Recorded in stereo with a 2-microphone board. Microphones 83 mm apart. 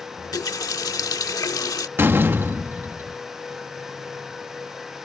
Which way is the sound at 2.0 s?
25° right (ahead or behind).